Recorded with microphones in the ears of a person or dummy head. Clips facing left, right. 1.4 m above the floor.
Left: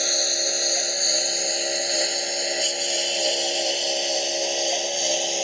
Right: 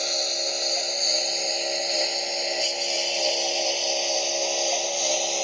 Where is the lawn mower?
15° left (ahead or behind); by 5.5 s 10° left (ahead or behind).